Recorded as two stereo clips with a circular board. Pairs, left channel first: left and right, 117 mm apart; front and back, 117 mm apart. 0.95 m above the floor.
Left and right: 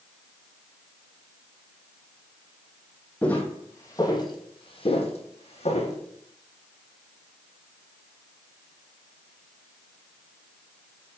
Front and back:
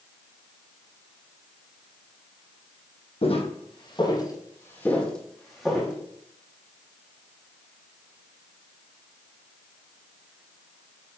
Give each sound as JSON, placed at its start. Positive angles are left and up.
{"t": 3.2, "sound": "footsteps", "azimuth_deg": 10, "distance_m": 1.8}